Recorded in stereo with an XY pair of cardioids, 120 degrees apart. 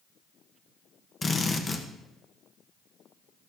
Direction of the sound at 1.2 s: 30° left.